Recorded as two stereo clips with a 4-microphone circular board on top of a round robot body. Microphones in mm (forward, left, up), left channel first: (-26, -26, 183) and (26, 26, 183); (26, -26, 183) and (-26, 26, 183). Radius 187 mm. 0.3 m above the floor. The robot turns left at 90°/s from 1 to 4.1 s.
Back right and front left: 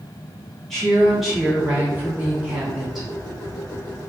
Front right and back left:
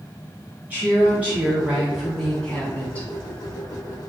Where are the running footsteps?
I don't hear running footsteps.